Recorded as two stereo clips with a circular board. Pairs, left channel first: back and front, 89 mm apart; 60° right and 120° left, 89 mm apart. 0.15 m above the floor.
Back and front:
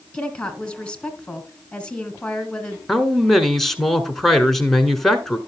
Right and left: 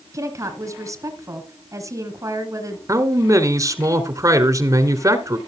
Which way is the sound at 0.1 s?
110° left.